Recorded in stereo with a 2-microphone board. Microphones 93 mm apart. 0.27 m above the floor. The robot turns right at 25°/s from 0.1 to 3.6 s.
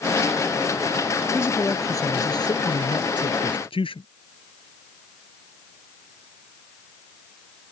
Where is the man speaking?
25° left; by 4.1 s 80° left.